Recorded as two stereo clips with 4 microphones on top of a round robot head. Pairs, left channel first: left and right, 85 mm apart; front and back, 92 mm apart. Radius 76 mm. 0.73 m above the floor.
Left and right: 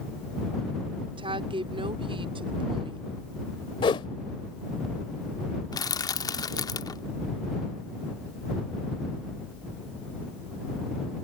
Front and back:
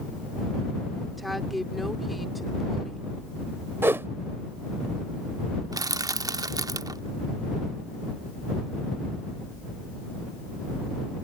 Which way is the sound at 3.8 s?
115° left.